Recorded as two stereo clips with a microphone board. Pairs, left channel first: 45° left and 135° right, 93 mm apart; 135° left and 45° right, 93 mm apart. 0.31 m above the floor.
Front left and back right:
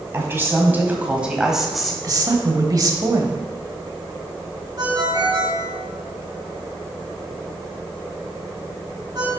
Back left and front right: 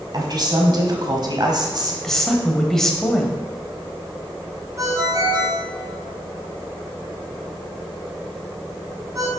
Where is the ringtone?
95° right, 1.7 m.